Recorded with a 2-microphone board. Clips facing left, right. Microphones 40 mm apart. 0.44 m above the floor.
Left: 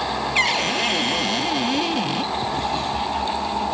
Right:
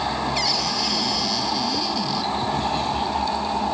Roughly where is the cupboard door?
Left.